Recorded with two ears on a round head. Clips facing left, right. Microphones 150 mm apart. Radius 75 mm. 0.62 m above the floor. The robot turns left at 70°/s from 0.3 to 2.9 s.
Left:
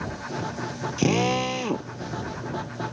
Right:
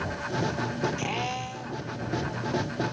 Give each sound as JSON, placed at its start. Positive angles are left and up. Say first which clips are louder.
{"t": 1.0, "sound": "a drill", "louder": "left 9 dB", "azimuth_deg": 135}